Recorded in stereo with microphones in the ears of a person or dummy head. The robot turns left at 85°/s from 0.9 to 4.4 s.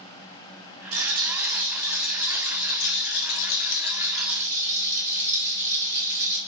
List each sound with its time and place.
0.9 s a rattle: 85° right, 1.2 m; by 6.4 s 20° right, 1.2 m